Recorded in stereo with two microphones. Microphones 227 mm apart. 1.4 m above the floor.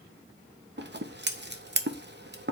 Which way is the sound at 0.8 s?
50° right (ahead or behind).